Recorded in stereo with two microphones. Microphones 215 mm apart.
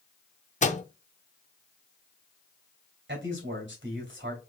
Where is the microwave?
35° left (ahead or behind), 0.5 m.